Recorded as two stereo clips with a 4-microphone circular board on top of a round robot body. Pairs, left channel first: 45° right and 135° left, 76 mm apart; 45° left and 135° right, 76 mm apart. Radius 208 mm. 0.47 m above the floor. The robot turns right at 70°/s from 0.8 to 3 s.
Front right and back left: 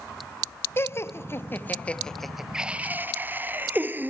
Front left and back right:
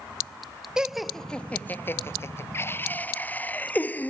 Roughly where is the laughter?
Ahead right.